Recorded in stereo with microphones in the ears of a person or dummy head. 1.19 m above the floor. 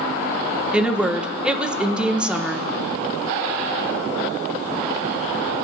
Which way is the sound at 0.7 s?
10° right (ahead or behind).